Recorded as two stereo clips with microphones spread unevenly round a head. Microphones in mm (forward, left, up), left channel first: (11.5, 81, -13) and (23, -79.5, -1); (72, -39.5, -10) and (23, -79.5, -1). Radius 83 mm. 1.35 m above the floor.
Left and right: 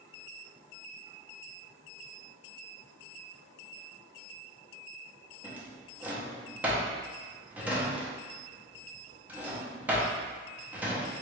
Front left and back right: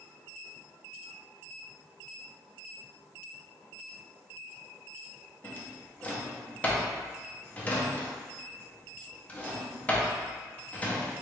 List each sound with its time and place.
5.4 s a drawer: 20° right, 0.8 m